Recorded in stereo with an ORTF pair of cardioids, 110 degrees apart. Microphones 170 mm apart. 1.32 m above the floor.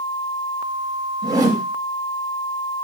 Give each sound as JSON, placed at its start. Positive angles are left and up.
{"t": 1.2, "sound": "a whoosh", "azimuth_deg": -20, "distance_m": 0.9}